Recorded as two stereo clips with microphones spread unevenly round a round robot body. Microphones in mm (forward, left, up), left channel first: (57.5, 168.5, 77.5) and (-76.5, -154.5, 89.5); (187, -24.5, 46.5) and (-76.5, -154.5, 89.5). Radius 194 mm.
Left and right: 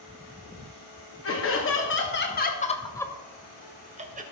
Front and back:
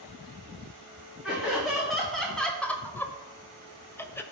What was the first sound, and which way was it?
Laughter, 115° left.